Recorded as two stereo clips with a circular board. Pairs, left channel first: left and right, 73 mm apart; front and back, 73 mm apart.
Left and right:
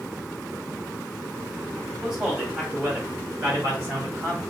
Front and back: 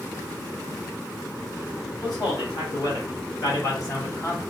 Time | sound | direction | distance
2.0 | a man speaking | 10° right | 2.0 m